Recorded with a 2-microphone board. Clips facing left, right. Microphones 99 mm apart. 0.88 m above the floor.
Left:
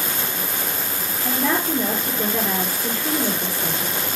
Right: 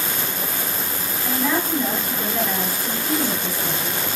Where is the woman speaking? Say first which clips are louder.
Even; 65° left (ahead or behind), 3 m.